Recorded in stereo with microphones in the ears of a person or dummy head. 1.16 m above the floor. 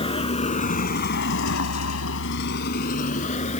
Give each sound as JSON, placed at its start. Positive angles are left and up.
{"t": 0.0, "sound": "a vehicle", "side_deg": 25}